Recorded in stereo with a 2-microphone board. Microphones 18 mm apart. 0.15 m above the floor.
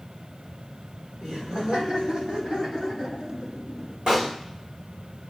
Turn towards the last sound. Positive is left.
turn(degrees=-65)  # may be behind; listen again after turning